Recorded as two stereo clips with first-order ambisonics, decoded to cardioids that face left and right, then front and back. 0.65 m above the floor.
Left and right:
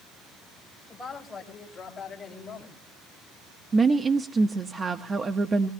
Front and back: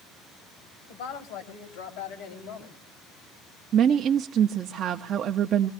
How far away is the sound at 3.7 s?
About 0.7 m.